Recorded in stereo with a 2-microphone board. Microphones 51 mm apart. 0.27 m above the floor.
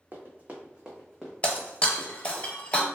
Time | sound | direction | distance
0.1 | running footsteps | 45° right (ahead or behind) | 0.9 m
1.4 | breaking glass | 30° left (ahead or behind) | 0.6 m